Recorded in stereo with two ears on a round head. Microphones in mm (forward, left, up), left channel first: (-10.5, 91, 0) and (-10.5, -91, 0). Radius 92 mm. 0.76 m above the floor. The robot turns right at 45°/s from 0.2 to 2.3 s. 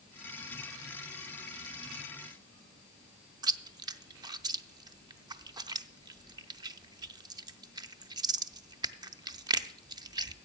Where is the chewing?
20° right (ahead or behind), 0.5 m.